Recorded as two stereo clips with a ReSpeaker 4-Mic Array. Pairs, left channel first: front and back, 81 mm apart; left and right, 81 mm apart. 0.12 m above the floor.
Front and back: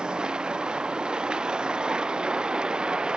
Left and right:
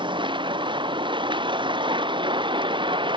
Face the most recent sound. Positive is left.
turn(degrees=-100)